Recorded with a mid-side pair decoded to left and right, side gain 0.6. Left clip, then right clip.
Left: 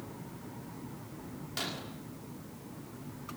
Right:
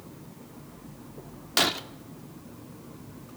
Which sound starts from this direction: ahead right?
Breaking glass, at 1.6 s.